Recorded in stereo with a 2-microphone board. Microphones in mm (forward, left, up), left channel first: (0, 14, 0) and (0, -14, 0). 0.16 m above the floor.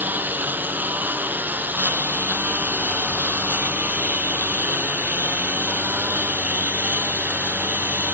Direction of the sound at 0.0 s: 90° right.